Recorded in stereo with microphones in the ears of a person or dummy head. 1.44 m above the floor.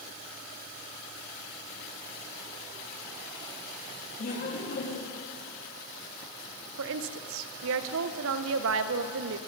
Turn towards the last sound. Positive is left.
turn(degrees=-60)  # may be behind; listen again after turning